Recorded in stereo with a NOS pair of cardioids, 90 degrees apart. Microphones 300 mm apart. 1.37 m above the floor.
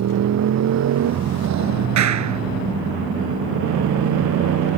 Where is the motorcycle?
60° right; by 4.8 s 80° right.